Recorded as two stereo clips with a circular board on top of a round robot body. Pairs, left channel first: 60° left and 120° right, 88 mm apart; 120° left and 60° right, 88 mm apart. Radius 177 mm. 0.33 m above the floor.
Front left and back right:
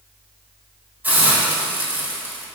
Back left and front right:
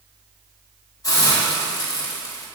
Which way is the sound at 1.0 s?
170° left.